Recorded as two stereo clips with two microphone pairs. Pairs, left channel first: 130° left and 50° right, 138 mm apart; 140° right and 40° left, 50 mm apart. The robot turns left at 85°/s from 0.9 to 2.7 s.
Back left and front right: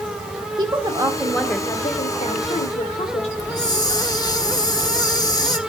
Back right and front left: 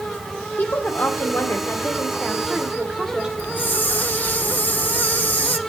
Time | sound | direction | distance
0.6 | a woman speaking | 100° right | 1.3 m
3.4 | a hiss | 170° right | 1.1 m